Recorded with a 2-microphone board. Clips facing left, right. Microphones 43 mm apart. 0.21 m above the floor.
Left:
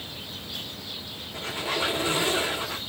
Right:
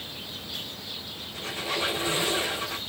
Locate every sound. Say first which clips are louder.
1.3 s a squeak: left 2 dB; 40° left (ahead or behind), 2.5 m